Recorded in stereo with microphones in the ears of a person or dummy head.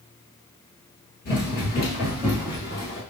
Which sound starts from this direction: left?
Running footsteps, at 1.2 s.